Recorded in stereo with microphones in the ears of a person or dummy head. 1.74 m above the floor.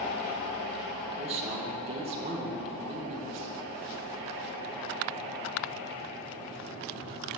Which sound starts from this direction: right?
A man speaking, at 1.1 s.